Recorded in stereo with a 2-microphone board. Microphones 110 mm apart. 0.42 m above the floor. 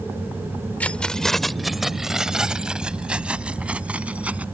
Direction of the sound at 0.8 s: 15° left (ahead or behind).